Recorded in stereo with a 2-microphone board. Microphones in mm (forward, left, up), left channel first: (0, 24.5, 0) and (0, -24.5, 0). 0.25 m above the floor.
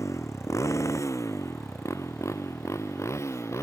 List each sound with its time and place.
0.0 s a motorcycle: 85° left; by 3.6 s 65° left (ahead or behind)